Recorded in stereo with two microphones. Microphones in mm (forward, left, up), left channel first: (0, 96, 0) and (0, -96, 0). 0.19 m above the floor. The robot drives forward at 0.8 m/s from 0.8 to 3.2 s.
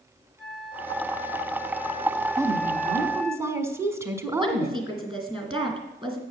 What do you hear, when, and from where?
0.4 s a flute: centre (ahead or behind), 1.8 m
2.4 s a woman speaking: 15° right (ahead or behind), 1.1 m
4.4 s a woman speaking: 25° right (ahead or behind), 2 m